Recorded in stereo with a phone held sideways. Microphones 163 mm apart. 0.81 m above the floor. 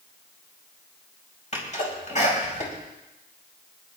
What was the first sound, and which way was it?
A sneeze, 45° left (ahead or behind).